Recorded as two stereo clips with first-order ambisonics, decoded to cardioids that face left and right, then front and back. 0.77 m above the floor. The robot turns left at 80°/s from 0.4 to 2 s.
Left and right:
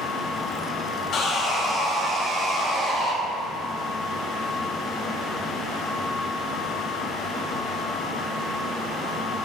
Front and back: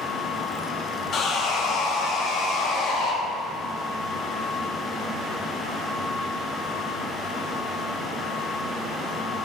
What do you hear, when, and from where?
1.1 s sawing: 45° left, 1.5 m; by 3.1 s 25° right, 1.5 m